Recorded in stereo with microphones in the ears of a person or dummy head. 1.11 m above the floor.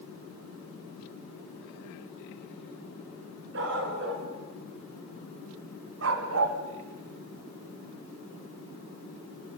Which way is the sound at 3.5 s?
60° right (ahead or behind).